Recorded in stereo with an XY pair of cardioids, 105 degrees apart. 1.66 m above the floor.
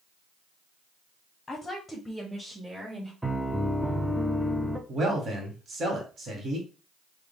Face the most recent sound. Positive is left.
turn(degrees=-50)